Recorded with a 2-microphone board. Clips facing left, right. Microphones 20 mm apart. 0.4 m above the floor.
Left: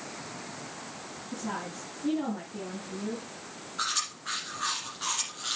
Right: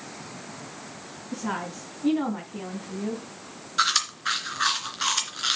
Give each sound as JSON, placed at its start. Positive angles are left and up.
{"t": 1.3, "sound": "a woman speaking", "side_deg": -75, "distance_m": 3.5}
{"t": 3.8, "sound": "chewing", "side_deg": -70, "distance_m": 2.5}